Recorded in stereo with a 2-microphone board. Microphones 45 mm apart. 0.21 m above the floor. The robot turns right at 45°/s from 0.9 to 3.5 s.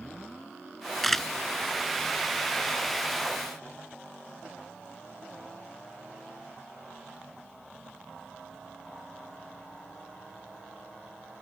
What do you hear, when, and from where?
1.0 s a camera shutter: centre (ahead or behind); by 1.3 s 10° left (ahead or behind)